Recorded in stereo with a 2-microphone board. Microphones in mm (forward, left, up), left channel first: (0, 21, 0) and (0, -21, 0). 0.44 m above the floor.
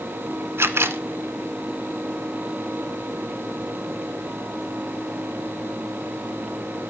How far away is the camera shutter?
About 0.8 m.